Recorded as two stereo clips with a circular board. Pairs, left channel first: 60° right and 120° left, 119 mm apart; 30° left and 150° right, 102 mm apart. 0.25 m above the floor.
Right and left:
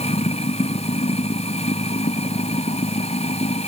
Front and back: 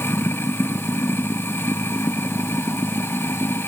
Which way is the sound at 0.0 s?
40° right.